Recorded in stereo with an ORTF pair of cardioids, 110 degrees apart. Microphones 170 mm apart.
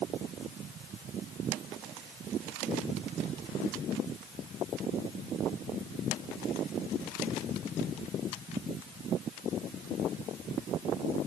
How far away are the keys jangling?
No keys jangling in this recording.